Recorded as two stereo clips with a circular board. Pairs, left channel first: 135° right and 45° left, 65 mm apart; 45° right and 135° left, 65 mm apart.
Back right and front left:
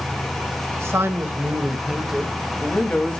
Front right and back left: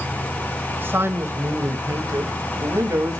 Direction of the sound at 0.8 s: 80° left.